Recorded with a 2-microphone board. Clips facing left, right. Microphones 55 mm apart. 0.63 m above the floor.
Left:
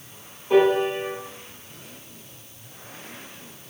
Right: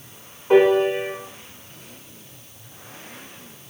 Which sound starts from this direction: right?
A piano, at 0.5 s.